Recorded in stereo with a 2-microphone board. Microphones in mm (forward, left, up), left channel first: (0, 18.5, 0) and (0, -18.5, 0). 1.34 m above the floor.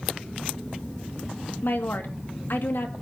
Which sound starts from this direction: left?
A woman speaking, at 1.6 s.